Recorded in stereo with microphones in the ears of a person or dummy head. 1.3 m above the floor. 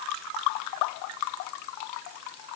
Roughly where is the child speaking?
I don't hear a child speaking.